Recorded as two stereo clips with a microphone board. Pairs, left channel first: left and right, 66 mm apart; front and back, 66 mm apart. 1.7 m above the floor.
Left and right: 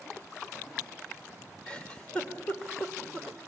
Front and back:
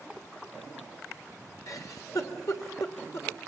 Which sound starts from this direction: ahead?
A giggle, at 1.7 s.